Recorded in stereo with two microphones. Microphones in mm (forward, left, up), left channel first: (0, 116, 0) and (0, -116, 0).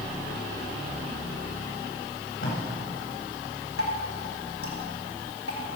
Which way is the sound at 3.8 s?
70° left (ahead or behind).